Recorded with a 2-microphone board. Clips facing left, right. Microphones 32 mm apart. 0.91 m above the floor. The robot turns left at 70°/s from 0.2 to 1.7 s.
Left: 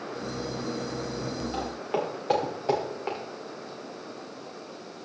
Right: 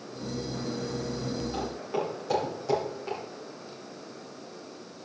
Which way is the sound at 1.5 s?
15° left (ahead or behind).